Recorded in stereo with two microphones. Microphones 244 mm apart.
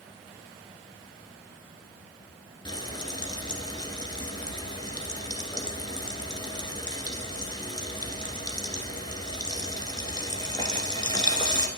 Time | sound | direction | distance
2.6 | frying | 15° left (ahead or behind) | 1.2 m